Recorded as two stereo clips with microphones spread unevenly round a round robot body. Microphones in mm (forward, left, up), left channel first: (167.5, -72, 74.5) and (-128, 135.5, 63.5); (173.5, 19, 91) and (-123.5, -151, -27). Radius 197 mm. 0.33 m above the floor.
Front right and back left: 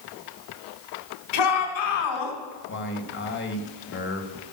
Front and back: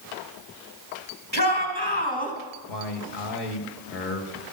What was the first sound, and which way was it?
A shout, 40° right.